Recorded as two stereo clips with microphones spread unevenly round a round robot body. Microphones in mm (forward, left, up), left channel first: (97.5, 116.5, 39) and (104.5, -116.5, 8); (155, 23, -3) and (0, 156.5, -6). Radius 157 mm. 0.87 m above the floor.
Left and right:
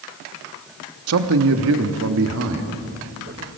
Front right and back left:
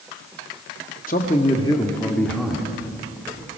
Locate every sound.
1.1 s a man speaking: 105° right, 1.2 m; by 3.5 s 140° right, 2.0 m